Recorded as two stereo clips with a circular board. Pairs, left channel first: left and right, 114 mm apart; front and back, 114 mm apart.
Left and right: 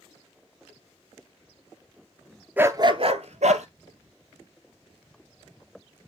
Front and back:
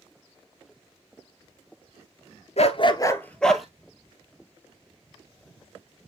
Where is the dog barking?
15° right, 0.9 m; by 3.7 s 90° right, 1.4 m.